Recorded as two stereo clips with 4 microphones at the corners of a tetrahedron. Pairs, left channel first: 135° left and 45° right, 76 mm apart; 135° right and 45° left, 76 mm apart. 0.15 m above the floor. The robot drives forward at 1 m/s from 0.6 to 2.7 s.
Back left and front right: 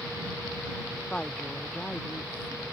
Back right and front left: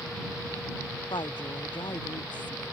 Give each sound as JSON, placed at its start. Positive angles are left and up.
{"t": 1.1, "sound": "a woman speaking", "azimuth_deg": -145}